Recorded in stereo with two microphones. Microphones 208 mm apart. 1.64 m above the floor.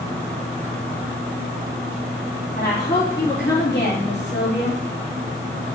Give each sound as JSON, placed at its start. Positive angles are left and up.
{"t": 2.6, "sound": "a woman speaking", "side_deg": 55, "distance_m": 3.0}